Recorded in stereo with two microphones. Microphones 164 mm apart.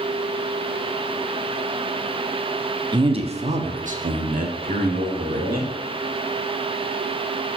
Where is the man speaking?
25° right (ahead or behind), 0.7 m; by 5.7 s 60° right (ahead or behind), 1.7 m.